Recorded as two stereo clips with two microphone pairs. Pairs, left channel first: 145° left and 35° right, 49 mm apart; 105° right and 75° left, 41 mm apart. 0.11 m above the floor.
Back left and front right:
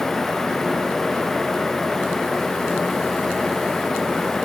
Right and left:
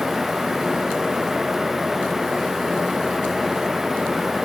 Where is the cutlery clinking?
I don't hear cutlery clinking.